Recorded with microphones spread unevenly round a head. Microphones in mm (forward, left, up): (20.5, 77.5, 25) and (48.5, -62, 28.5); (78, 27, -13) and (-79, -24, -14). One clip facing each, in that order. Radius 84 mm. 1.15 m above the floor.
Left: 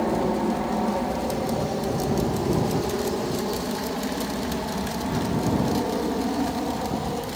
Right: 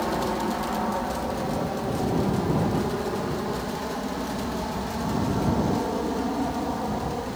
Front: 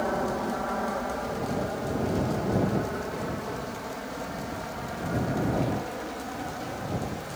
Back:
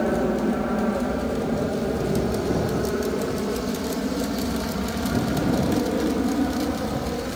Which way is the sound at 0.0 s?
165° left.